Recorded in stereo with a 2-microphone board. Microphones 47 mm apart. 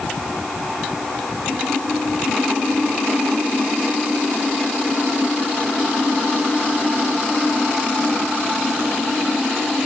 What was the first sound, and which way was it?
Only background noise.